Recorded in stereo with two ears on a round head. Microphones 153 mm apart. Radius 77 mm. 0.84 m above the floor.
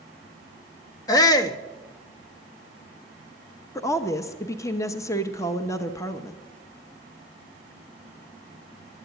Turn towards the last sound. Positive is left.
turn(degrees=20)  # may be behind; listen again after turning